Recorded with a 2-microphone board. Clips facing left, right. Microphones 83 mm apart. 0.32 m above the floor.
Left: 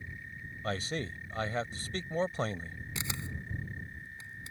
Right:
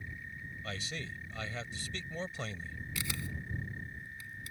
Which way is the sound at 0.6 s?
40° left (ahead or behind).